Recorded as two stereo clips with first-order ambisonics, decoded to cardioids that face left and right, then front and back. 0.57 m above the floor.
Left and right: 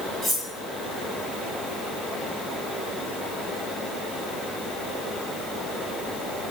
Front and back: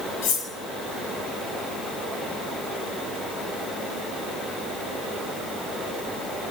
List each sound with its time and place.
0.2 s cutlery clinking: 5° right, 1.7 m